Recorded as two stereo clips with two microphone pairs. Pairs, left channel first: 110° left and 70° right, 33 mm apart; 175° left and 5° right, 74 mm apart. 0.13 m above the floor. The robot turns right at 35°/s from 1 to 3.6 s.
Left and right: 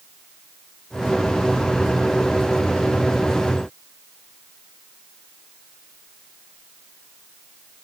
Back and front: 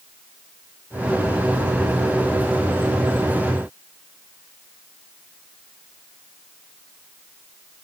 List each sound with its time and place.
Only background noise.